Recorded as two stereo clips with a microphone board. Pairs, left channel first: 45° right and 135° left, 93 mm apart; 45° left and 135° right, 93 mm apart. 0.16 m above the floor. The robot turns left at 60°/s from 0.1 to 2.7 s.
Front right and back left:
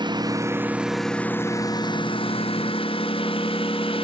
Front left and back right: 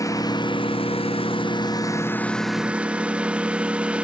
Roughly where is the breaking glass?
No breaking glass in this recording.